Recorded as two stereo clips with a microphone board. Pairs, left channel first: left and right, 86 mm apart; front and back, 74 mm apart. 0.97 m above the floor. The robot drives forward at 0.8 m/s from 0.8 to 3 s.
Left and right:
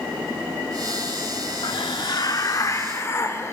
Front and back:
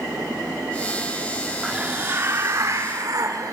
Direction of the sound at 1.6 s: 105° left.